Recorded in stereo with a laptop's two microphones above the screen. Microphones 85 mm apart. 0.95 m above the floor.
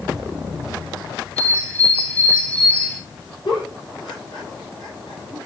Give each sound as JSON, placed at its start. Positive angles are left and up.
{"t": 1.4, "sound": "a bird", "side_deg": 15, "distance_m": 2.0}
{"t": 3.5, "sound": "a giggle", "side_deg": 65, "distance_m": 4.5}